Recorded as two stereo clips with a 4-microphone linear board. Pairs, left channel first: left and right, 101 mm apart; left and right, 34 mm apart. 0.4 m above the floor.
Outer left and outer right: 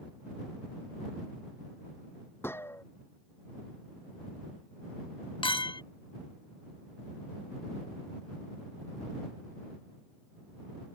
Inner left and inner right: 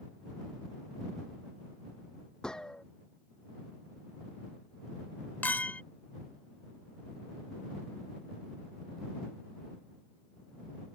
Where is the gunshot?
25° left (ahead or behind).